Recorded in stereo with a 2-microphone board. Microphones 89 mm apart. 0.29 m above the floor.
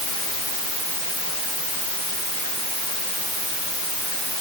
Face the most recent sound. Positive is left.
No sound to turn to.